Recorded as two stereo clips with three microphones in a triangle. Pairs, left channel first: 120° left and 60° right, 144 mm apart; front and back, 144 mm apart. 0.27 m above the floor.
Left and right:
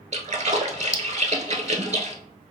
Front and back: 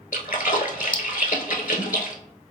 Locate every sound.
0.1 s a splash: 20° right, 0.7 m